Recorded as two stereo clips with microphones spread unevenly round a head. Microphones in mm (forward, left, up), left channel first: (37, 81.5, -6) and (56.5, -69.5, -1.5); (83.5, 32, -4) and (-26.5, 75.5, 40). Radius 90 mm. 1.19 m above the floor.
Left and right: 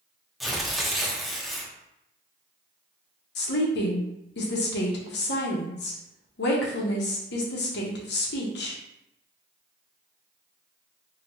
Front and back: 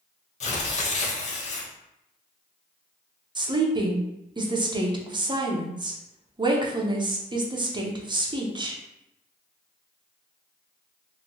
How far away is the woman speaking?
About 0.8 m.